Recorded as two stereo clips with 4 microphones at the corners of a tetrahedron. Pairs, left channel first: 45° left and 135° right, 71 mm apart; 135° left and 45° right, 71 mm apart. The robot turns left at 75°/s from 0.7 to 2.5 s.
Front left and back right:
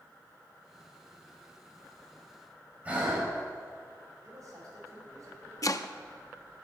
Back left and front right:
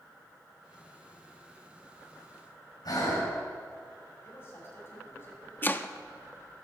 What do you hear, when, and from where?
2.9 s breathing: 155° left, 4 m
4.2 s a man speaking: 175° right, 6 m
5.6 s chopping: 75° left, 0.5 m